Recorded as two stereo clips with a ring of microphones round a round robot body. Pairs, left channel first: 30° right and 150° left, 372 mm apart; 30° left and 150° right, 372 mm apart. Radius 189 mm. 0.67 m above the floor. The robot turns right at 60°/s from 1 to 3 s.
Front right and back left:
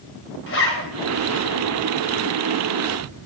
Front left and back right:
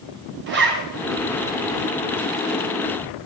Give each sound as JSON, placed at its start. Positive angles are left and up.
{"t": 0.5, "sound": "a zipper", "azimuth_deg": -90, "distance_m": 2.5}